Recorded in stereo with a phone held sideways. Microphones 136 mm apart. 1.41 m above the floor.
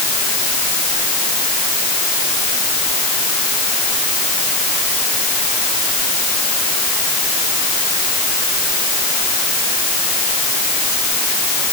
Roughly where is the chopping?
I don't hear chopping.